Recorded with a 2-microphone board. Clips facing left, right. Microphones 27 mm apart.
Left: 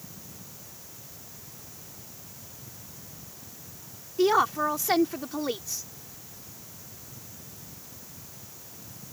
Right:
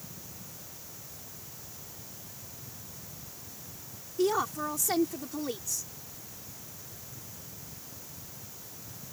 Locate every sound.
4.2 s a woman speaking: 40° left (ahead or behind)